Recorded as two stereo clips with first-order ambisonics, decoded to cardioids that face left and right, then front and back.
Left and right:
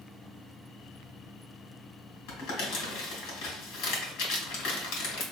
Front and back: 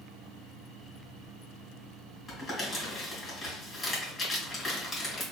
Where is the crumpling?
80° left, 1.9 m.